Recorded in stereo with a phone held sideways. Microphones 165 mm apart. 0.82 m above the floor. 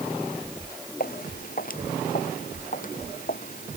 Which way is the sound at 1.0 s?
60° left (ahead or behind).